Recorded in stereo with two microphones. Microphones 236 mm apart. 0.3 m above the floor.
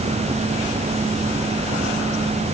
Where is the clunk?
No clunk in this recording.